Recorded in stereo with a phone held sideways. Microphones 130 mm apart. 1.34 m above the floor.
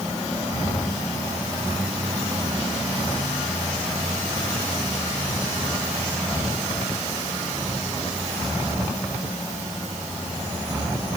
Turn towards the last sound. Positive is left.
No sound to turn to.